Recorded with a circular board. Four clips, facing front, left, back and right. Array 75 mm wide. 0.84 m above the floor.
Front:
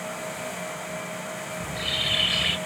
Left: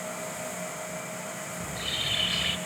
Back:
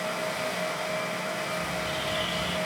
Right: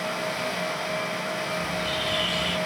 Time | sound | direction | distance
1.6 | a bird | 10° left | 2.5 m